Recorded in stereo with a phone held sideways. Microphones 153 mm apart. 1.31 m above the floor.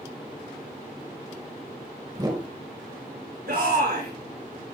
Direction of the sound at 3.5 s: 80° right.